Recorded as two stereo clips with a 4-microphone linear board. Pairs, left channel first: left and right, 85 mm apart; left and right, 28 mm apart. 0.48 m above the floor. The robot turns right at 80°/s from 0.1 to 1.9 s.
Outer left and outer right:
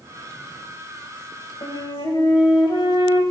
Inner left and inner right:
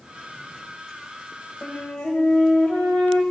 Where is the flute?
60° left (ahead or behind), 2.5 m; by 3.2 s 65° left (ahead or behind), 2.5 m.